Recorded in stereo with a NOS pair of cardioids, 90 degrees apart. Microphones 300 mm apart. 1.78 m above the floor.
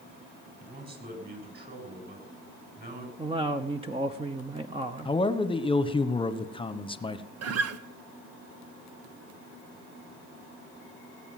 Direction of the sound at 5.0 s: 15° left.